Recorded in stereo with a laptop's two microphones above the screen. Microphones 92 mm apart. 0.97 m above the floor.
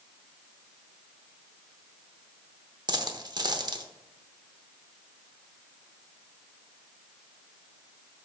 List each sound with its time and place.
2.9 s a dropped coin: 50° right (ahead or behind), 0.7 m